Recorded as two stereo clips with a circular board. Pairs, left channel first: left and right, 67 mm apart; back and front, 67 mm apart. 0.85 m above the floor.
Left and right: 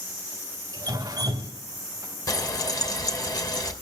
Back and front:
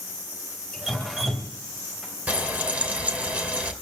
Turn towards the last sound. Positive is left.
turn(degrees=70)